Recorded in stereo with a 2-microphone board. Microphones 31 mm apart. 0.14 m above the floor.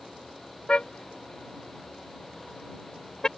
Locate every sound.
0.7 s a car horn: 35° left (ahead or behind); by 3.3 s 25° left (ahead or behind)